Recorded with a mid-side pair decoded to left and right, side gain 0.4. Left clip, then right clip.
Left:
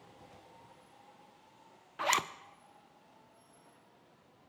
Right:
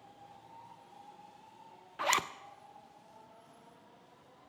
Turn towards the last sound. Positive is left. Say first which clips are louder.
# even
turn(degrees=0)